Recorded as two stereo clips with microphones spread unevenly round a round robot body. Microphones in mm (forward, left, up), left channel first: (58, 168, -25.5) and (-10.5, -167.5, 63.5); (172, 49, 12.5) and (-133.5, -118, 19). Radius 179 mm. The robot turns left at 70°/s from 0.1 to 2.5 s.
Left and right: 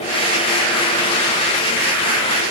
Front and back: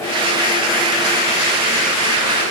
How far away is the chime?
No chime in this recording.